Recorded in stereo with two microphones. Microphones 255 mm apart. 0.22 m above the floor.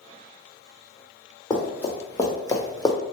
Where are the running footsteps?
15° left (ahead or behind), 1.8 m.